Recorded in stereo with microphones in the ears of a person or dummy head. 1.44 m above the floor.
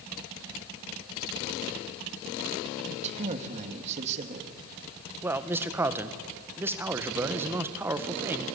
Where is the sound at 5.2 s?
15° right (ahead or behind), 1.5 m.